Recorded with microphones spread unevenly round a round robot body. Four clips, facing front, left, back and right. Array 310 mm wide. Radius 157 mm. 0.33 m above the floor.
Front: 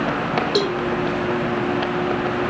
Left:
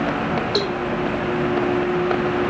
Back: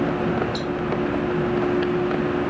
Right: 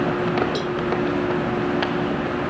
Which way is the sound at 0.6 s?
25° left.